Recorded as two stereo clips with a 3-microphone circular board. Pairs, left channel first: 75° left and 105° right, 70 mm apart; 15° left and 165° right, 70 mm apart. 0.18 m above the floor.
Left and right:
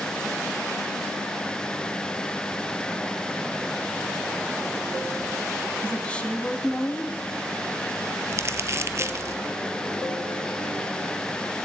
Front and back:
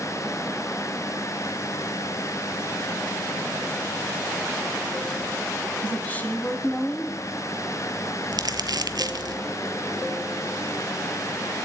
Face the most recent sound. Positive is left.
turn(degrees=-150)